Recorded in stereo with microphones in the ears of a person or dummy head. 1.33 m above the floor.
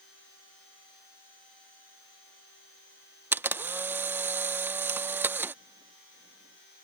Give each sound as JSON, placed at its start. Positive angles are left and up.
{"t": 3.3, "sound": "a camera shutter", "side_deg": -10}